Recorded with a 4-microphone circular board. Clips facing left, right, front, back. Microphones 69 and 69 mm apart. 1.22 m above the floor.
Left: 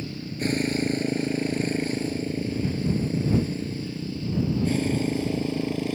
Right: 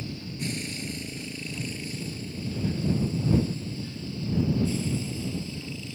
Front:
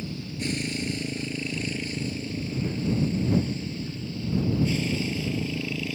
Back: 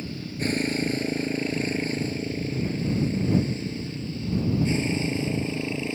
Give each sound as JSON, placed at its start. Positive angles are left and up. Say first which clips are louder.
{"t": 0.0, "sound": "a motorcycle", "louder": "left 5 dB, back 2 dB", "azimuth_deg": 130}